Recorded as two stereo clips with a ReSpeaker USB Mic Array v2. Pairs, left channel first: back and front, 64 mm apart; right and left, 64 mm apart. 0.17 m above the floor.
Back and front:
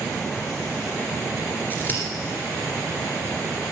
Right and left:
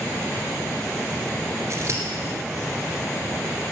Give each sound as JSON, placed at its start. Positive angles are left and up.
{"t": 1.7, "sound": "scissors", "azimuth_deg": 125, "distance_m": 2.5}